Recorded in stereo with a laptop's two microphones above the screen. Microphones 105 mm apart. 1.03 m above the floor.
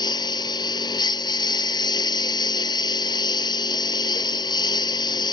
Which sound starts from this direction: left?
A lawn mower, at 0.0 s.